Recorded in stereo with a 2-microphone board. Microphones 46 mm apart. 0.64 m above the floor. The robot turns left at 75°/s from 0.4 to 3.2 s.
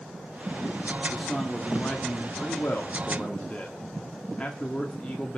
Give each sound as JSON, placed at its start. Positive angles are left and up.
{"t": 1.1, "sound": "a man speaking", "azimuth_deg": -170, "distance_m": 1.5}